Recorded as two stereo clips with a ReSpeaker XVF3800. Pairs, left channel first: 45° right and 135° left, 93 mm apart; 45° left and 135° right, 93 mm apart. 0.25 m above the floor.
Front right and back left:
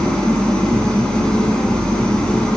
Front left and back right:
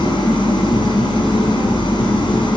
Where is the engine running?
35° left, 2 m.